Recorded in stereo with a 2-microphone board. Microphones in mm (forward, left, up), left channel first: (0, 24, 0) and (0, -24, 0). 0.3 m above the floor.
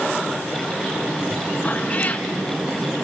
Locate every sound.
1.6 s a cat meowing: 30° left (ahead or behind), 1.4 m